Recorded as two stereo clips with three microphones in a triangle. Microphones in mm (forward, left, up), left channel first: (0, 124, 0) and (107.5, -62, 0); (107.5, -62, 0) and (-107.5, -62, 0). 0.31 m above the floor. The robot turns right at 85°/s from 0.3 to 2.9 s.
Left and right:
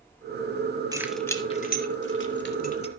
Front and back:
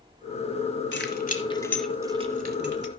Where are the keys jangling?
10° left, 1.3 m; by 2.9 s straight behind, 1.3 m.